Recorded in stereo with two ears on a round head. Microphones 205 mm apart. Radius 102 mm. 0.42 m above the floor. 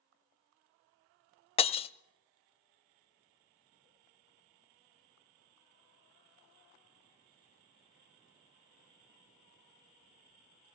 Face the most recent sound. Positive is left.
turn(degrees=25)  # may be behind; listen again after turning